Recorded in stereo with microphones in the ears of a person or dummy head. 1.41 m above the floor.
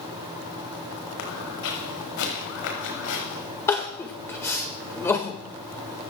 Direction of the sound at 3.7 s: 10° left (ahead or behind).